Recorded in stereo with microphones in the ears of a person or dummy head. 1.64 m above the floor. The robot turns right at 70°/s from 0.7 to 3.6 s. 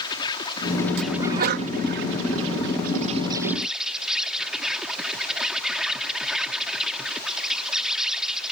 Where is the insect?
155° left; by 8.5 s 5° right.